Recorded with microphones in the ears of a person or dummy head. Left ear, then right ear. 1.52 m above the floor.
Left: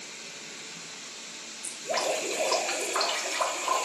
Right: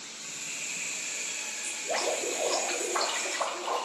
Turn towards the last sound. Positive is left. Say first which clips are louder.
# left 2 dB
turn(degrees=5)  # may be behind; listen again after turning